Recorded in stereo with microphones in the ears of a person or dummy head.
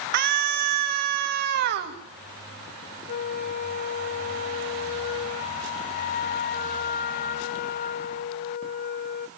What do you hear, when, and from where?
0.1 s a scream: 60° right (ahead or behind), 3 m
3.1 s a flute: 30° left (ahead or behind), 0.9 m